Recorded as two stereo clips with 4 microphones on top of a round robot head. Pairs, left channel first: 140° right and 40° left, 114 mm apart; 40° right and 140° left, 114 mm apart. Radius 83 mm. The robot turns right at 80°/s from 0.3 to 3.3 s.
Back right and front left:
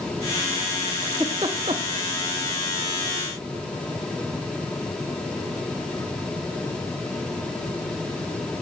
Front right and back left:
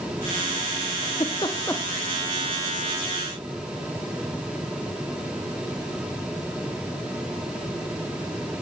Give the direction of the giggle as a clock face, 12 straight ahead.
1 o'clock.